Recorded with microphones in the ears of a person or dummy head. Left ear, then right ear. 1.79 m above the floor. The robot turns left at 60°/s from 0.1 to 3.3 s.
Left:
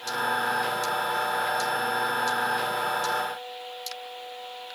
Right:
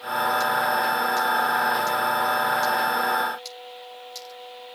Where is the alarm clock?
No alarm clock in this recording.